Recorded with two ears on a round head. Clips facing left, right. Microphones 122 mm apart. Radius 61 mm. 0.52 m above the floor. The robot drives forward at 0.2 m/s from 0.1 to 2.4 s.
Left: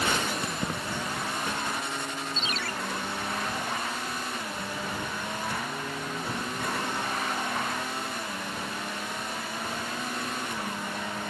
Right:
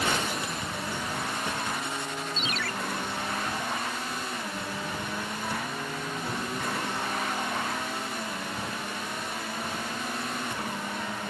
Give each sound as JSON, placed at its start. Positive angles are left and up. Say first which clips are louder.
{"t": 0.4, "sound": "keys jangling", "louder": "left 2 dB", "side_deg": 45}
{"t": 2.4, "sound": "a ringtone", "louder": "right 1 dB", "side_deg": 30}